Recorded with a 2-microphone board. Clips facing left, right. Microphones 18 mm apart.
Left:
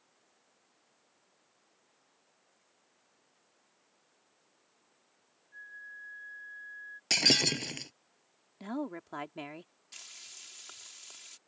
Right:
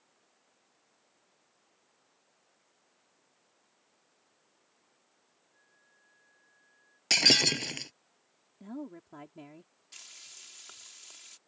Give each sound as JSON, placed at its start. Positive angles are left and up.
{"t": 5.5, "sound": "a flute", "side_deg": 85}
{"t": 7.1, "sound": "breaking glass", "side_deg": -15}
{"t": 8.6, "sound": "a woman speaking", "side_deg": 50}
{"t": 9.9, "sound": "frying", "side_deg": 5}